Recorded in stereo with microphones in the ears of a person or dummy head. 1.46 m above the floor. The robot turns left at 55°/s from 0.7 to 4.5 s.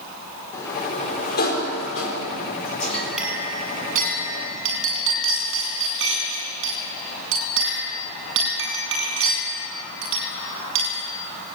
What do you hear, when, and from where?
0.5 s a sliding door: 160° left, 4.5 m; by 3.1 s 25° left, 4.5 m
2.9 s a clink: 5° left (ahead or behind), 10 m; by 11.0 s 80° right, 10 m